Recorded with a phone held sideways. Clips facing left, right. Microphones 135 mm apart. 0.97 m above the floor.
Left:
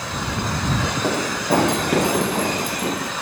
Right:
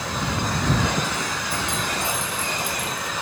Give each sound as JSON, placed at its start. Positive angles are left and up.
{"t": 1.0, "sound": "running footsteps", "side_deg": 65}